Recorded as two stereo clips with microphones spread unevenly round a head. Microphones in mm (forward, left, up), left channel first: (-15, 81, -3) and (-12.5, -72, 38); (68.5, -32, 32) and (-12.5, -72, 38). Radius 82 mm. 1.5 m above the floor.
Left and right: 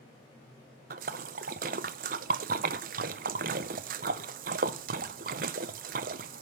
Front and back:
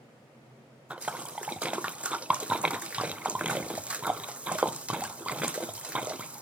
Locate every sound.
0.9 s a splash: 80° right, 0.7 m